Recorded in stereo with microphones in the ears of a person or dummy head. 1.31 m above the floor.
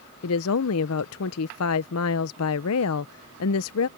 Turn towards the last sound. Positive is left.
turn(degrees=75)  # may be behind; listen again after turning